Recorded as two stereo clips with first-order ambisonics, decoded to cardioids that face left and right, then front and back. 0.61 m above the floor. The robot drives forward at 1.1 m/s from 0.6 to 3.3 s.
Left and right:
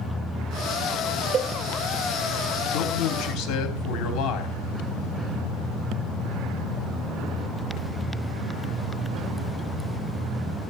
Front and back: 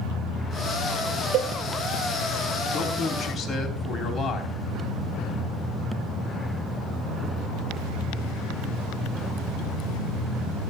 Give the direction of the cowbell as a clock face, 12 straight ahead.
5 o'clock.